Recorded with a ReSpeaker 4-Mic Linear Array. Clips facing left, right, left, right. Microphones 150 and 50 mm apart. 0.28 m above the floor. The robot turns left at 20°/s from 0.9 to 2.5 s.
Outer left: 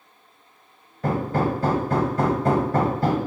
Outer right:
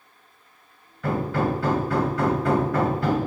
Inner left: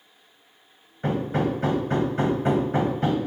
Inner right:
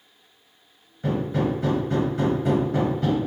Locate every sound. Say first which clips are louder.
1.0 s hammering: outer left 1 dB, even; 40° left (ahead or behind), 1.3 m; by 3.2 s 35° left (ahead or behind), 1.3 m